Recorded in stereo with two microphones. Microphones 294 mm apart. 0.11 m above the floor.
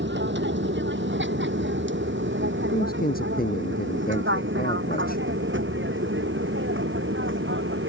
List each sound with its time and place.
0.0 s an aircraft: 40° right (ahead or behind)
2.7 s a man speaking: 30° left (ahead or behind)